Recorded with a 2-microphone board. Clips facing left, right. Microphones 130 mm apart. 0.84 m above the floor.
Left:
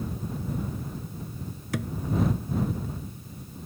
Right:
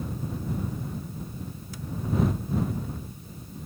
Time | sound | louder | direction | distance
1.7 | a thud | left 12 dB | 70° left (ahead or behind) | ?